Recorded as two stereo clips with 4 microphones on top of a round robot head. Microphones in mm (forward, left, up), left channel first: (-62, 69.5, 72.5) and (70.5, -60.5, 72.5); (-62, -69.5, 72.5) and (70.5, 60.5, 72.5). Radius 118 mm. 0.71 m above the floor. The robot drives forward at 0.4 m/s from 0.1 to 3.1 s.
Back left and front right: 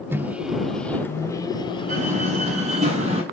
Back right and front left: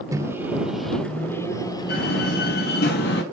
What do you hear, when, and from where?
0.1 s a microwave: 10° left, 0.8 m; by 2.9 s 175° left, 1.1 m
1.9 s a door slam: 100° right, 5.5 m; by 3.2 s 105° right, 5.5 m